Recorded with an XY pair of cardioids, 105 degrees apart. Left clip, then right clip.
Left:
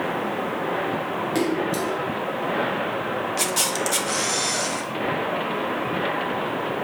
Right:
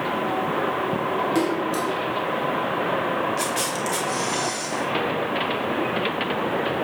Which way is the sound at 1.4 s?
15° left.